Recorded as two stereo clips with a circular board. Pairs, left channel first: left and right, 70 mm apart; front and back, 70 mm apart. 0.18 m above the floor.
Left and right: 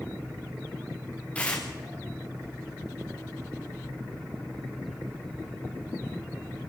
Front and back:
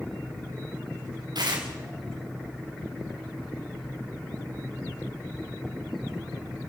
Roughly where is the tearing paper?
Behind.